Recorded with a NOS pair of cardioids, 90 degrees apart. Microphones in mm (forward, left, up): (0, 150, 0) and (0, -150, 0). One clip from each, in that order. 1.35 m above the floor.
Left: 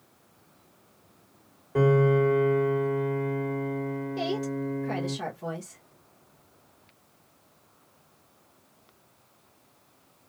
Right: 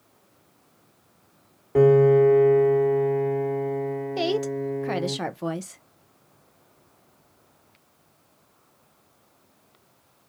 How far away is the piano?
About 1.4 m.